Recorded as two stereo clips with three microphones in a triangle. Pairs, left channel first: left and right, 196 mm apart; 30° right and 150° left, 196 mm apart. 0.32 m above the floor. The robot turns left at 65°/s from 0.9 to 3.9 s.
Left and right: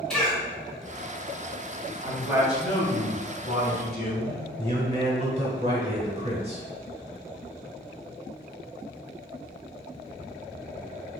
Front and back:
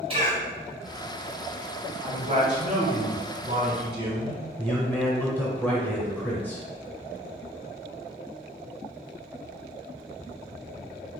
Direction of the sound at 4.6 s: 105° right.